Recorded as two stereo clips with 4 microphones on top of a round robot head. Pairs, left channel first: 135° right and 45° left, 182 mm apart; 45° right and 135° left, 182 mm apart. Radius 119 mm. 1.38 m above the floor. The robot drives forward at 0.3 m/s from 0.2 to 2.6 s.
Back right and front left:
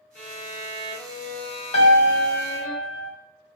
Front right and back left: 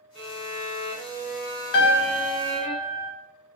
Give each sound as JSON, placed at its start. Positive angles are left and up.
{"t": 0.1, "sound": "a violin", "azimuth_deg": -105, "distance_m": 1.5}
{"t": 1.7, "sound": "a piano", "azimuth_deg": -75, "distance_m": 0.6}